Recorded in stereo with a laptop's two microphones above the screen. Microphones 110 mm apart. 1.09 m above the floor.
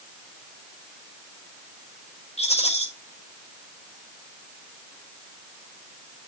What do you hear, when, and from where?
2.4 s a rattle: 75° left (ahead or behind), 5.5 m